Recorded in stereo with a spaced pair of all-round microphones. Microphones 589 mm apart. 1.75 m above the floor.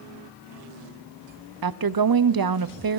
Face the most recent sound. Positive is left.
turn(degrees=-40)  # may be behind; listen again after turning